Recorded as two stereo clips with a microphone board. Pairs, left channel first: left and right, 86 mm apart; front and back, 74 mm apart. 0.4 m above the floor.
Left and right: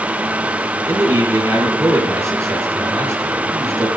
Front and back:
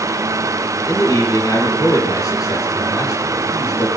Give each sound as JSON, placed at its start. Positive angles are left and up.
{"t": 0.9, "sound": "a man speaking", "azimuth_deg": -35, "distance_m": 5.5}